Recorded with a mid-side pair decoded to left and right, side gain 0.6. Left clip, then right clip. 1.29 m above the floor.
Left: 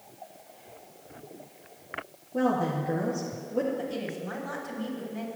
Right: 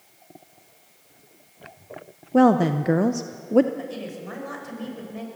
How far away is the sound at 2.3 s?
About 0.7 m.